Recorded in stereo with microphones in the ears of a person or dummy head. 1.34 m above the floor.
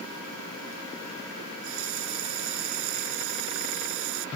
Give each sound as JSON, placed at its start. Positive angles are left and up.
{"t": 1.4, "sound": "a running tap", "side_deg": -80}